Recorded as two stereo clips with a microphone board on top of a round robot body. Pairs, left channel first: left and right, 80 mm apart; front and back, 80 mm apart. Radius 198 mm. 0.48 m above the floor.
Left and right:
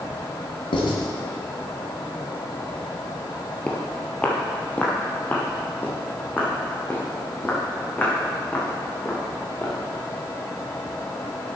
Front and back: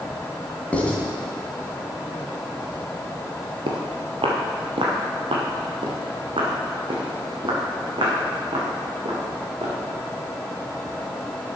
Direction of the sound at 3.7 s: 170° left.